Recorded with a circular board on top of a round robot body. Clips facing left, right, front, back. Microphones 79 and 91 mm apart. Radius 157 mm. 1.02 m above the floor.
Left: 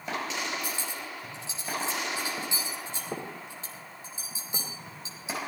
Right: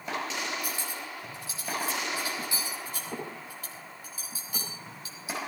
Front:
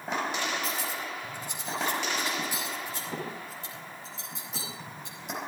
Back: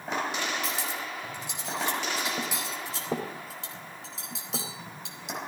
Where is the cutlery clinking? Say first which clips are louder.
Even, even; 160° left, 3.5 m.